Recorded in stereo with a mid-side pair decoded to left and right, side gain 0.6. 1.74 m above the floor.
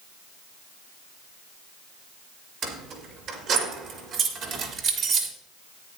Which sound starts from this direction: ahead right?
Keys jangling, at 2.6 s.